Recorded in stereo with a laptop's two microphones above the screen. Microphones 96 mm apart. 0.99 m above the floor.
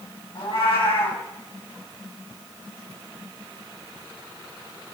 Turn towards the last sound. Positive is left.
turn(degrees=85)